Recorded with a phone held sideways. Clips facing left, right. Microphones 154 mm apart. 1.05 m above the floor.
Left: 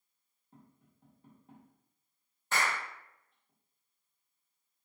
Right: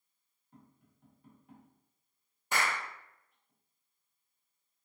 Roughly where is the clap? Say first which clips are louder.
Even; centre.